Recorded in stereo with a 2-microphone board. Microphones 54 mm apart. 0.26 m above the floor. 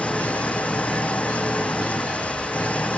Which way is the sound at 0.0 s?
25° left (ahead or behind).